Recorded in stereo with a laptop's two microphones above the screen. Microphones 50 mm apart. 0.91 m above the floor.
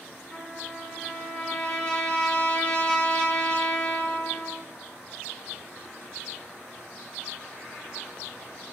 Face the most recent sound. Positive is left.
turn(degrees=25)  # may be behind; listen again after turning